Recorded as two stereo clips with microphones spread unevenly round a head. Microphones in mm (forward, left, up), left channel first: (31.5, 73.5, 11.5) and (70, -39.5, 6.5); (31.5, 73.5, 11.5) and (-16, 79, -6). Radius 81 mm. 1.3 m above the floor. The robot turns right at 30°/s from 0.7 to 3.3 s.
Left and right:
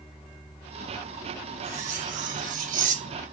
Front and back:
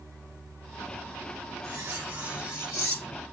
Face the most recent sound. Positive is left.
turn(degrees=-65)